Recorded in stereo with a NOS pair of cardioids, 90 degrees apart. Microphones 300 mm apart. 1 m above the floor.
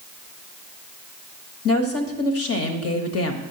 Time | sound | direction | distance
1.6 | a woman speaking | 55° left | 1.1 m